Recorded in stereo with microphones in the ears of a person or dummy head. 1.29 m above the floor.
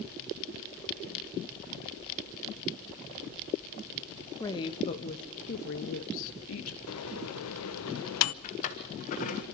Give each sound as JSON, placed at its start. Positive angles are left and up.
{"t": 4.4, "sound": "a woman speaking", "side_deg": 20, "distance_m": 1.5}
{"t": 6.9, "sound": "a microwave", "side_deg": 85, "distance_m": 0.7}
{"t": 8.4, "sound": "a drawer", "side_deg": 35, "distance_m": 1.6}